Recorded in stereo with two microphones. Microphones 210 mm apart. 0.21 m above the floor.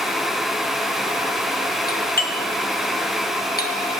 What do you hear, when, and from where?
1.9 s a doorbell: 45° left (ahead or behind), 2 m